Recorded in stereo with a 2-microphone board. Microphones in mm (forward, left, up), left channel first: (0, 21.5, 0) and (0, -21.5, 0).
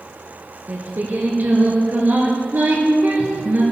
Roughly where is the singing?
Right.